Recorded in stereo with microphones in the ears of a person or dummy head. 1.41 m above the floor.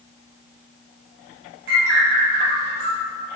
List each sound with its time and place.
1.7 s a bird: 75° right (ahead or behind), 3.5 m